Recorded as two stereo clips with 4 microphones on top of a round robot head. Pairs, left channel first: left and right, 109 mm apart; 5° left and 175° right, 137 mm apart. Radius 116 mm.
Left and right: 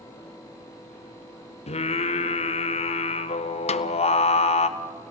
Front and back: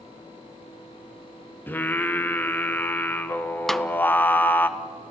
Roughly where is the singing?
Left.